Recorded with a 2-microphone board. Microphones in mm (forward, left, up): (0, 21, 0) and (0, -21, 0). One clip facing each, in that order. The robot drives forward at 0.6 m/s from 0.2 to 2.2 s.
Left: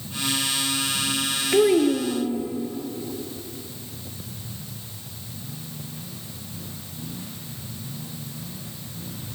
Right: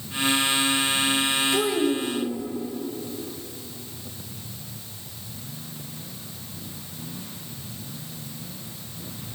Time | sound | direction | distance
1.5 | a child speaking | 40° left (ahead or behind) | 0.8 m